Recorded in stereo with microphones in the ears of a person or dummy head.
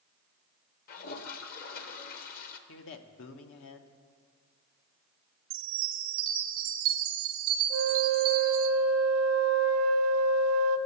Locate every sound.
0.9 s a toilet flushing: 50° left (ahead or behind), 0.9 m
2.7 s a man speaking: 70° left (ahead or behind), 0.9 m
5.5 s a chime: 65° right (ahead or behind), 0.8 m
7.7 s a flute: 85° right, 0.6 m